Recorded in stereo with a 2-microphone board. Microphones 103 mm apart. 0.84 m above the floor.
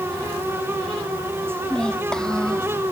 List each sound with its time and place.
1.6 s a child speaking: 5° left (ahead or behind)